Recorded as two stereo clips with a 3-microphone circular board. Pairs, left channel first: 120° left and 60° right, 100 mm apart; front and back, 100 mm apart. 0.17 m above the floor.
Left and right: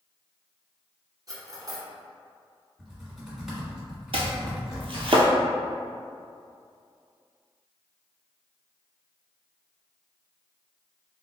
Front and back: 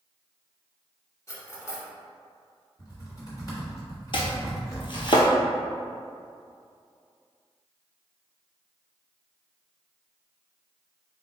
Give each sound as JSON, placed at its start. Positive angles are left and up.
{"t": 1.3, "sound": "cutlery clinking", "azimuth_deg": -45, "distance_m": 1.0}
{"t": 2.8, "sound": "typing on a keyboard", "azimuth_deg": 20, "distance_m": 1.6}
{"t": 4.1, "sound": "chopping", "azimuth_deg": -40, "distance_m": 0.7}